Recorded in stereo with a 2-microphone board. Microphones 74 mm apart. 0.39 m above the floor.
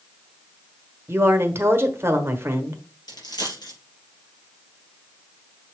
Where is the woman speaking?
30° right (ahead or behind), 1.2 m.